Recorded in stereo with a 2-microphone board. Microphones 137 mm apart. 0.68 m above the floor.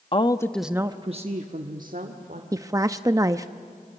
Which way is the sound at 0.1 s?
40° left (ahead or behind).